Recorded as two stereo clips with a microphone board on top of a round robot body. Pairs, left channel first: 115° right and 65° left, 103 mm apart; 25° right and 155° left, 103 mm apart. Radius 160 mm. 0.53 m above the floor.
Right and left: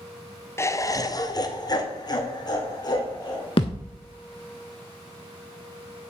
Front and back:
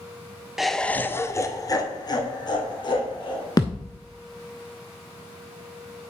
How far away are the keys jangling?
I don't hear keys jangling.